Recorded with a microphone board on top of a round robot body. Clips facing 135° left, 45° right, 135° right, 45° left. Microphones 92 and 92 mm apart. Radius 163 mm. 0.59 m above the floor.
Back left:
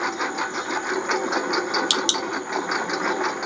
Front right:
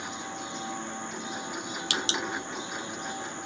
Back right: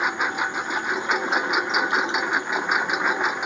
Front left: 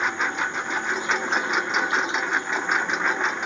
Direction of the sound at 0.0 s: 145° left.